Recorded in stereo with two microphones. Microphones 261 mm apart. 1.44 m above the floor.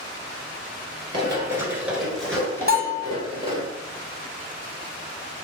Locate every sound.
1.1 s running footsteps: 20° right (ahead or behind), 1.4 m; by 3.7 s 25° left (ahead or behind), 1.7 m
2.7 s a bell: 35° right (ahead or behind), 1.4 m